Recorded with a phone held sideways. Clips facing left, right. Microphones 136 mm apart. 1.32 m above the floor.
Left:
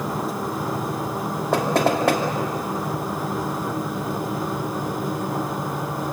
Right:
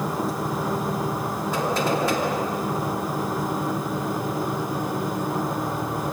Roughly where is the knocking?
Left.